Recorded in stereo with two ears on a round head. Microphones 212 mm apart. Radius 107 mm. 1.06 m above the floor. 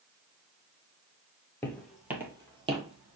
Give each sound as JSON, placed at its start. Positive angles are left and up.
{"t": 1.6, "sound": "footsteps", "side_deg": 10, "distance_m": 1.2}